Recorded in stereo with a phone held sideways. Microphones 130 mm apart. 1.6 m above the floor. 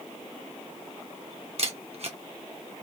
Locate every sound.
1.6 s a camera shutter: 50° right (ahead or behind), 0.9 m